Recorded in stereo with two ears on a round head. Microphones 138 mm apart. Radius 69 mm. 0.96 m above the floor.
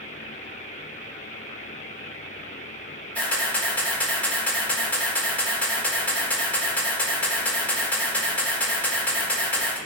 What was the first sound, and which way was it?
A camera shutter, 10° left (ahead or behind).